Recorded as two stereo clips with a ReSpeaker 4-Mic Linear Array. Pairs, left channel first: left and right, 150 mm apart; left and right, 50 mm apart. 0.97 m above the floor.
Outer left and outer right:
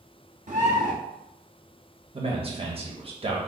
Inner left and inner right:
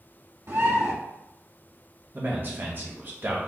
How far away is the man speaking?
About 1.0 m.